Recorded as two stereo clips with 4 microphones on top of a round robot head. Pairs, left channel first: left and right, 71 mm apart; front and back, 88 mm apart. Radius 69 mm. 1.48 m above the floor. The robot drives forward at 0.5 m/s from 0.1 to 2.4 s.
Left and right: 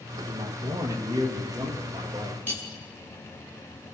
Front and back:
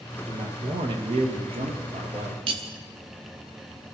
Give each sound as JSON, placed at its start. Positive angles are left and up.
{"t": 0.3, "sound": "a man speaking", "azimuth_deg": -135, "distance_m": 1.7}
{"t": 2.5, "sound": "cutlery clinking", "azimuth_deg": 165, "distance_m": 1.0}